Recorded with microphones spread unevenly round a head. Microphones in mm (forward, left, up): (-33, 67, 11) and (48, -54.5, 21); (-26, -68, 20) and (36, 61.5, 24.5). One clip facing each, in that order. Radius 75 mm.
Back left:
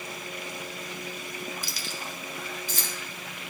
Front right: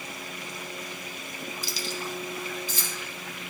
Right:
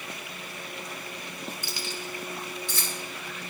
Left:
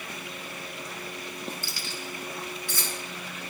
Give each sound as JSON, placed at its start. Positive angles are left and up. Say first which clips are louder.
{"t": 1.6, "sound": "keys jangling", "louder": "front right 4 dB, right 1 dB", "azimuth_deg": 170, "distance_m": 0.6}